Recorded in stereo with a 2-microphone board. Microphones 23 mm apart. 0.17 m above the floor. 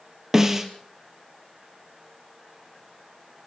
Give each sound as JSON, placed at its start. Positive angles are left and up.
{"t": 0.3, "sound": "a snare drum", "side_deg": -20, "distance_m": 2.0}